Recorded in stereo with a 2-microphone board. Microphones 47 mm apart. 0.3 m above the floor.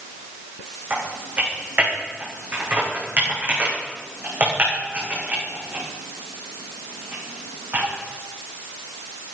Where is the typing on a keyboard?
40° right (ahead or behind), 8 m.